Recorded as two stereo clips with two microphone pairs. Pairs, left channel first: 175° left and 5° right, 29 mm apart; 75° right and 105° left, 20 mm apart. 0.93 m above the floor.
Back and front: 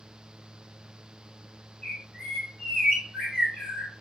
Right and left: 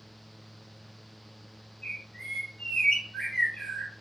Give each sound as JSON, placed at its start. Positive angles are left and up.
{"t": 1.8, "sound": "a bird", "azimuth_deg": -120, "distance_m": 1.8}